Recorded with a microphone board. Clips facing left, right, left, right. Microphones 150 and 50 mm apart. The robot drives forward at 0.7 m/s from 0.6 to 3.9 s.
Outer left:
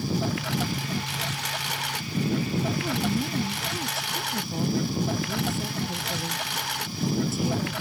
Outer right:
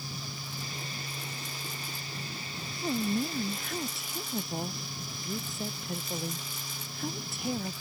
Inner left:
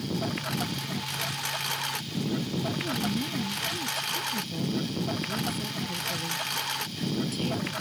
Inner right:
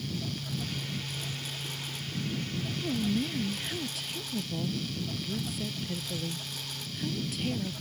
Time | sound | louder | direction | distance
0.0 | a lawn mower | outer left 15 dB, inner left 6 dB | 80° left | ?
2.8 | a woman speaking | outer left 3 dB, even | centre (ahead or behind) | ?